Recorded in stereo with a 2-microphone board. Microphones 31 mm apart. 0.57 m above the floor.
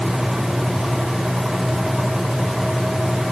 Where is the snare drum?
I don't hear a snare drum.